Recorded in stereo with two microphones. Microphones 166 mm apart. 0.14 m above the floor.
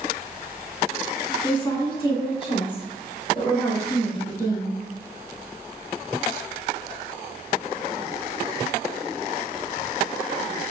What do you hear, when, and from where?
1.4 s a woman speaking: 25° left (ahead or behind), 1.3 m; by 4.8 s 30° left (ahead or behind), 3 m